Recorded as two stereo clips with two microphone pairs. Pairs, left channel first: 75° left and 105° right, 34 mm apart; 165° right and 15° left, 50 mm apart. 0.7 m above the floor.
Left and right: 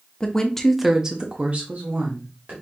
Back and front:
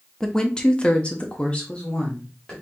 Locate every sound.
0.2 s a woman speaking: 125° left, 0.9 m; by 2.5 s 95° right, 1.5 m